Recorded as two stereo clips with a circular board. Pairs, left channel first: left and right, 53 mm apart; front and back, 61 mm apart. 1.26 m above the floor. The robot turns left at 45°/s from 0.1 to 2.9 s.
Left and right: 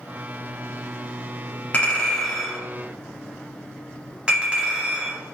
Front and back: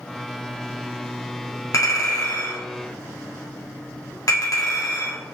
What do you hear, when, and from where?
1.7 s a clink: 30° left, 1.9 m; by 5.2 s 20° right, 1.9 m